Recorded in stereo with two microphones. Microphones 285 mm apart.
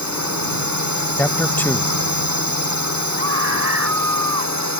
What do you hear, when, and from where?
0.0 s a drone: 80° right; by 4.8 s 75° right (ahead or behind)
1.2 s a man speaking: 5° left (ahead or behind)
3.2 s a scream: 55° right (ahead or behind)